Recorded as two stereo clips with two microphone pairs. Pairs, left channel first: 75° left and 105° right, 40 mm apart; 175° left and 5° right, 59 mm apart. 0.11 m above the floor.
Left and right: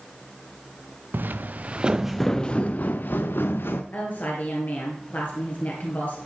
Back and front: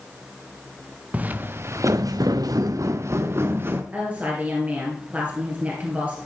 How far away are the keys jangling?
No keys jangling in this recording.